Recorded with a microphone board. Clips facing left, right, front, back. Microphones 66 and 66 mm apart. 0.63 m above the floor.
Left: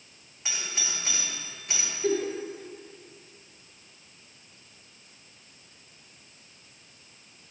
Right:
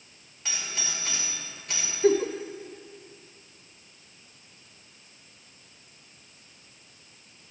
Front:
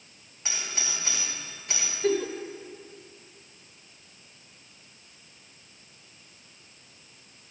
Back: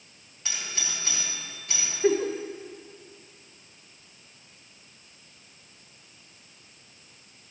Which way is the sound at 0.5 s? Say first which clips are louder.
Even, front 1 dB; 35° left.